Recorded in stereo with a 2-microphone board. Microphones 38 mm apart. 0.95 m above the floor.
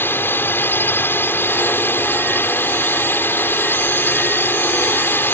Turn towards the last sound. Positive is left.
turn(degrees=70)  # may be behind; listen again after turning